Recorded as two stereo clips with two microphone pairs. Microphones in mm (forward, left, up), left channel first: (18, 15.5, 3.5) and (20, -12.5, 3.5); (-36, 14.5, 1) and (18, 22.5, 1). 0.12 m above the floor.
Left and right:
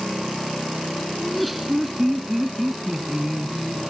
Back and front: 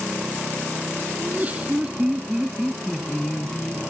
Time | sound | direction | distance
1.2 | laughter | 5° left | 1.7 m